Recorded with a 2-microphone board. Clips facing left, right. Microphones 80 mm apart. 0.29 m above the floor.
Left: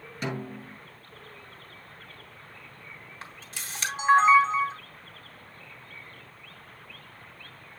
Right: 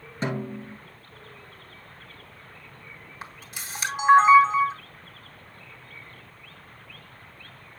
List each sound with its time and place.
0.2 s a snare drum: 30° right (ahead or behind), 1.5 m
3.2 s a camera shutter: 15° right (ahead or behind), 2.5 m